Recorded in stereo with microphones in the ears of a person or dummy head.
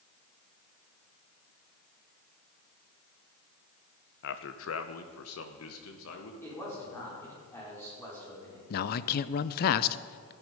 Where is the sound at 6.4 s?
20° left (ahead or behind), 5 m.